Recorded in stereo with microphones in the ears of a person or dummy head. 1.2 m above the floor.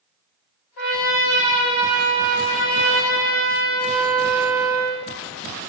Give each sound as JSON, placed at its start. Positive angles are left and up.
{"t": 0.8, "sound": "a trumpet", "side_deg": 55, "distance_m": 1.4}